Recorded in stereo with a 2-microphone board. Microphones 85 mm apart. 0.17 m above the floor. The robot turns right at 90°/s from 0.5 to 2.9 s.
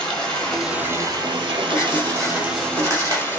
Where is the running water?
165° left, 0.9 m; by 3.4 s 20° left, 0.9 m.